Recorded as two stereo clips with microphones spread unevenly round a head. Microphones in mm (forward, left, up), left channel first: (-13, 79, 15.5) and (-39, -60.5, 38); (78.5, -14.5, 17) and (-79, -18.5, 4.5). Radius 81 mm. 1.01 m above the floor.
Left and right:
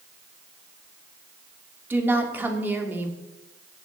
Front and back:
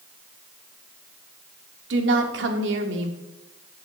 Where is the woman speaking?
Straight behind, 2 m.